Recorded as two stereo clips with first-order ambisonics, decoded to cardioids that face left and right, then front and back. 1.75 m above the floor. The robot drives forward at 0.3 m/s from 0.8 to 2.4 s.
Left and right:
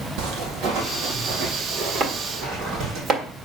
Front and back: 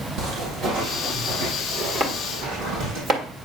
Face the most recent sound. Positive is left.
turn(degrees=-130)